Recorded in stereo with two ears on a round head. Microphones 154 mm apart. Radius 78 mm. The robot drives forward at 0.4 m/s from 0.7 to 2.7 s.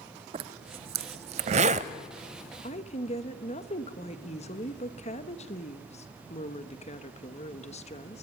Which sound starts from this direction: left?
A woman speaking, at 2.6 s.